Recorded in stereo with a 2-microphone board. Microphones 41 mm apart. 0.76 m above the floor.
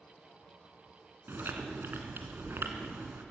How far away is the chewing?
About 2 m.